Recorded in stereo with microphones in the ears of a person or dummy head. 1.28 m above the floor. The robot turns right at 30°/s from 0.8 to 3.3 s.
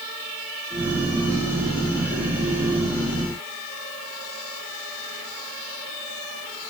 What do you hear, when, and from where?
Only background noise.